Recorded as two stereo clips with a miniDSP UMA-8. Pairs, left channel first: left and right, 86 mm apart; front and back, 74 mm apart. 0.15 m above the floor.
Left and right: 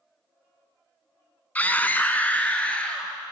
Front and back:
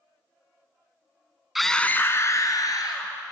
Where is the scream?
100° left, 1.0 m; by 3.1 s 15° left, 2.5 m.